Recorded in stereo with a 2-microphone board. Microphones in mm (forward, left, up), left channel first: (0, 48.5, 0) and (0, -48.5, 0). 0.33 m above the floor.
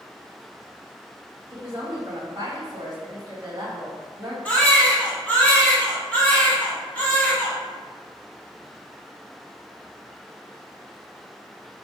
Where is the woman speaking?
45° right (ahead or behind), 1.8 m.